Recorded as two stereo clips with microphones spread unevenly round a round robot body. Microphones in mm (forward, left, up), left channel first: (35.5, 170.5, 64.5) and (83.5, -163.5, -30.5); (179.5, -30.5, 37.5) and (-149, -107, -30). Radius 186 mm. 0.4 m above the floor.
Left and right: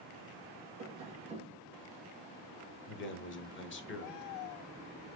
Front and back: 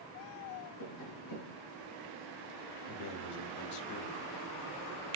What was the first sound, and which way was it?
Tapping, 10° right.